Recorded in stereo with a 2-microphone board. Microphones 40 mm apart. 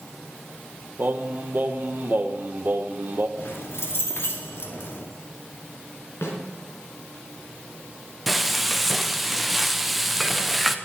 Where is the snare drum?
70° left (ahead or behind), 3.5 m.